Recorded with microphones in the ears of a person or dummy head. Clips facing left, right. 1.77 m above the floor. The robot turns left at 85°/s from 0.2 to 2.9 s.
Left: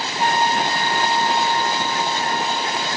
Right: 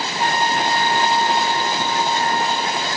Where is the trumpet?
100° right, 3.5 m; by 2.9 s 30° left, 3.5 m.